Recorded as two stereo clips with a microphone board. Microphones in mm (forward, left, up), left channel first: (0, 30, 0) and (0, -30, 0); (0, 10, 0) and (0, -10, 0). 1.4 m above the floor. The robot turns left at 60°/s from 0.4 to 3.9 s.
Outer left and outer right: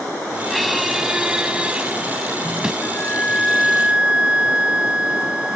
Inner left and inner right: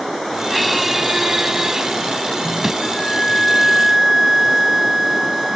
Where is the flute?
45° left; by 5.6 s 20° right.